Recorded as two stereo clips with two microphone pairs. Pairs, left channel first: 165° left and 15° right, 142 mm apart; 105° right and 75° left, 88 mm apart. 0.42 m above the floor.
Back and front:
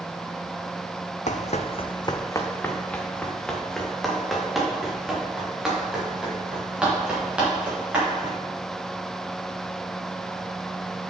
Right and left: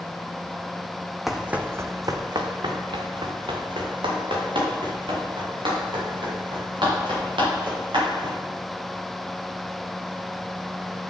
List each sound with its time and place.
1.3 s running footsteps: 165° left, 0.9 m; by 8.3 s 65° left, 7.5 m